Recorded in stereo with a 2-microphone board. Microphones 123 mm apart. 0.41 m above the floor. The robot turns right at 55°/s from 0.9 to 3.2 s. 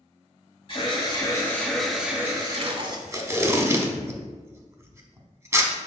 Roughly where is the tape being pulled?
Right.